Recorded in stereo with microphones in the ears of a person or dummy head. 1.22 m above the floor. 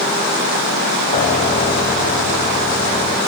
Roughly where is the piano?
Left.